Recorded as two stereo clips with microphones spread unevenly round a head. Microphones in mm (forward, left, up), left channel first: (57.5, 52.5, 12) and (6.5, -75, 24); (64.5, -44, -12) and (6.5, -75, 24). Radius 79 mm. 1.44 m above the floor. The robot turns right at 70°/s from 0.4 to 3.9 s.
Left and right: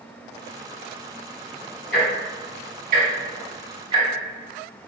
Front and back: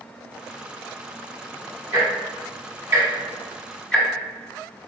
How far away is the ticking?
About 1.3 m.